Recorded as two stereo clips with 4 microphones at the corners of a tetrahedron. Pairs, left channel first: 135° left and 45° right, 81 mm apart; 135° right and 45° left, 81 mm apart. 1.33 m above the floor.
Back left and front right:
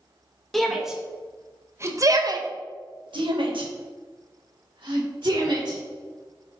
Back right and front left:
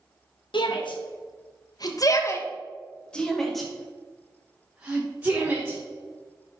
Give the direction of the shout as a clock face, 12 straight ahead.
5 o'clock.